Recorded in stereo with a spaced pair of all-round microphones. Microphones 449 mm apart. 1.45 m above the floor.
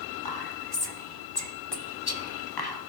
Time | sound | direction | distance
0.2 | whispering | 50° left (ahead or behind) | 0.7 m